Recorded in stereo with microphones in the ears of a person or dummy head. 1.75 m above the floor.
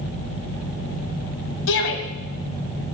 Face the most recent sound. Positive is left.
turn(degrees=75)  # may be behind; listen again after turning